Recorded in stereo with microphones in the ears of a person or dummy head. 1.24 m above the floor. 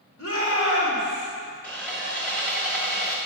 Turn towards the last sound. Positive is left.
turn(degrees=15)  # may be behind; listen again after turning